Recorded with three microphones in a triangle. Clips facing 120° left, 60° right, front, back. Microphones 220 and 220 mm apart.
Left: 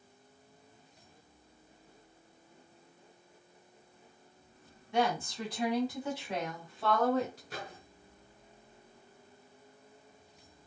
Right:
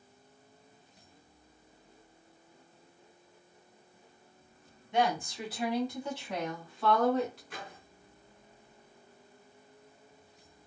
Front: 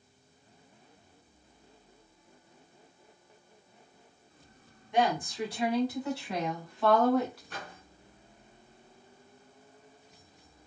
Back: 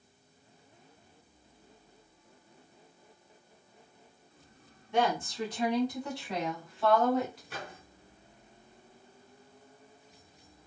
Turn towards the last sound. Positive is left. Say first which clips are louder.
# left 2 dB, back 1 dB
turn(degrees=105)